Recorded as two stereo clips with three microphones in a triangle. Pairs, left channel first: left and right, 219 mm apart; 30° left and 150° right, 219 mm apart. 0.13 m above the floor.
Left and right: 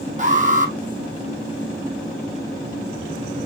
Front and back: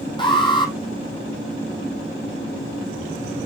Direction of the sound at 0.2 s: 35° right.